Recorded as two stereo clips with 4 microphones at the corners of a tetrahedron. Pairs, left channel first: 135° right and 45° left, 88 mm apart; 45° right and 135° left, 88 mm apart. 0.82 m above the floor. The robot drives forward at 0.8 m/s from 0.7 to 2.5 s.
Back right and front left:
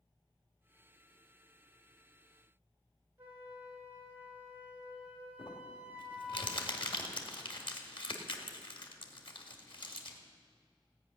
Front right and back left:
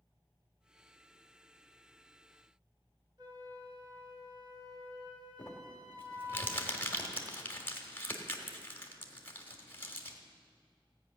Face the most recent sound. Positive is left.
turn(degrees=-110)